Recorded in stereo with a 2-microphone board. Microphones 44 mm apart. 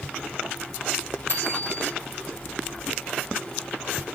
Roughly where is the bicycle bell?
Left.